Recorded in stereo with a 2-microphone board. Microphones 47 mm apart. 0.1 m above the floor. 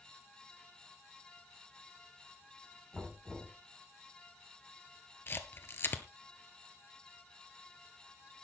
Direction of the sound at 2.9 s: Centre (ahead or behind).